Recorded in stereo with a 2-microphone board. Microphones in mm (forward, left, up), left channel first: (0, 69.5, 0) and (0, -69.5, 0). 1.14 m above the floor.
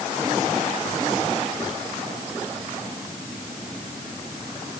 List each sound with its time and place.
Only background noise.